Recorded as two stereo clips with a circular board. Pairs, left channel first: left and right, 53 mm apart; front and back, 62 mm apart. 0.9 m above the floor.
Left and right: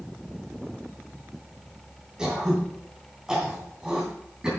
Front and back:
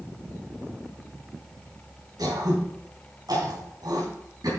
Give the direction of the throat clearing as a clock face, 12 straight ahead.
6 o'clock.